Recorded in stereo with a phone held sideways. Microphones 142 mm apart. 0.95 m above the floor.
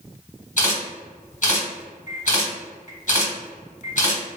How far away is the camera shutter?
About 1.6 m.